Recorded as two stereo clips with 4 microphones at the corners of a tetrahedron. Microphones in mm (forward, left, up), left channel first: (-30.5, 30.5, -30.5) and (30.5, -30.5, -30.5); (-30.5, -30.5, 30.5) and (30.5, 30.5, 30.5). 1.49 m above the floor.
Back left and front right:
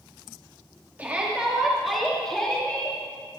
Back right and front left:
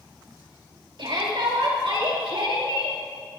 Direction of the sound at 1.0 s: 25° left.